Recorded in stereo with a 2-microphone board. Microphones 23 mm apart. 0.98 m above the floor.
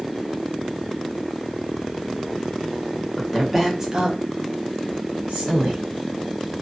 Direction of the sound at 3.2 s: Centre (ahead or behind).